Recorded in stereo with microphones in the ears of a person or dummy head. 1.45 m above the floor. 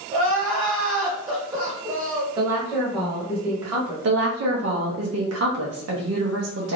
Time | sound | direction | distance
0.1 | crying | 25° right (ahead or behind) | 1.5 m
2.4 | a woman speaking | 20° right (ahead or behind) | 1.1 m
4.0 | a woman speaking | 85° right | 0.9 m